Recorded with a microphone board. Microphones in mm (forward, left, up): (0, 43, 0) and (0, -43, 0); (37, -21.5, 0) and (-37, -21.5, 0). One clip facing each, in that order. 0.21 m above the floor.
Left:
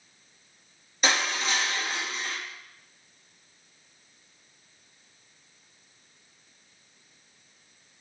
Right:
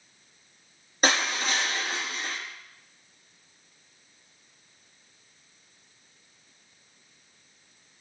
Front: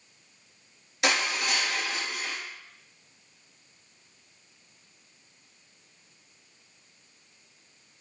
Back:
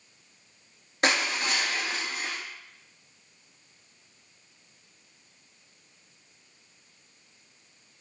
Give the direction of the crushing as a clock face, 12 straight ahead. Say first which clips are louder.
Right 1 dB, back 1 dB; 4 o'clock.